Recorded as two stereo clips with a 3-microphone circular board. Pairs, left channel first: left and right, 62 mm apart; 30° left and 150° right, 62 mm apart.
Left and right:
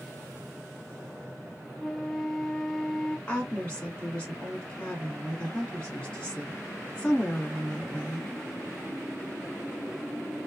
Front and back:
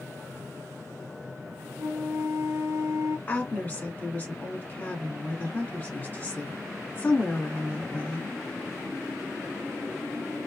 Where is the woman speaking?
35° left, 1.6 m.